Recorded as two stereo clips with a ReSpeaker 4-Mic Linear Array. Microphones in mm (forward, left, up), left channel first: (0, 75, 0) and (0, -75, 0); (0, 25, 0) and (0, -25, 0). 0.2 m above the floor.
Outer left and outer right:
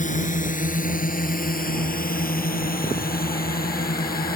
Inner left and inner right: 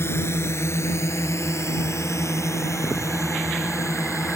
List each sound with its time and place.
0.0 s a drone: 55° left (ahead or behind); by 4.3 s 80° left